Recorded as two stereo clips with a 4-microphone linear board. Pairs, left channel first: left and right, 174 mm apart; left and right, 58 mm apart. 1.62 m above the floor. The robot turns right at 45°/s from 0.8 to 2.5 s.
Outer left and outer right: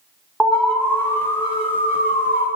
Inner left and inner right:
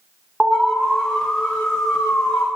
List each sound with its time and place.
0.4 s an alarm: 5° left, 1.2 m; by 2.5 s 80° left, 1.2 m